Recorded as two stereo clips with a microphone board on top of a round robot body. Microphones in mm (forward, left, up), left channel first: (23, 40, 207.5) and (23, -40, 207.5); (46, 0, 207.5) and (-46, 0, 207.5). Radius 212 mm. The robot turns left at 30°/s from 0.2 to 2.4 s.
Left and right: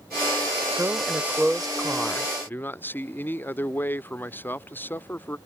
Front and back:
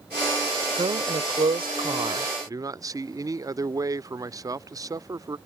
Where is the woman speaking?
155° right; by 2.3 s 160° left.